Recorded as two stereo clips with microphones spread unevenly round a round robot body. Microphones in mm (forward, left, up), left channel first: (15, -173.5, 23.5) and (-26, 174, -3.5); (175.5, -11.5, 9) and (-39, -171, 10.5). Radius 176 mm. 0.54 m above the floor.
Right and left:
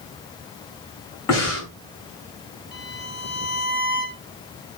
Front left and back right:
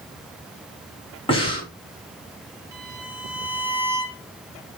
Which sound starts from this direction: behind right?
A violin, at 2.7 s.